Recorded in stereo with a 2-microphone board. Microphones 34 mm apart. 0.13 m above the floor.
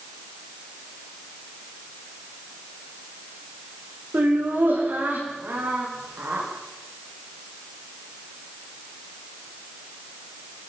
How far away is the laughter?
About 9 m.